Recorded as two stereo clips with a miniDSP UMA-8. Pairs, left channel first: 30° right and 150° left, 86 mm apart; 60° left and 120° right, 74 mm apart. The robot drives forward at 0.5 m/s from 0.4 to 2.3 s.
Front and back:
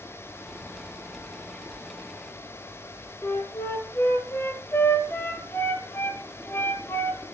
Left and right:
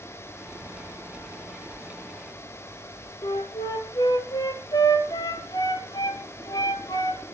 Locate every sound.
3.2 s a flute: 30° left, 2 m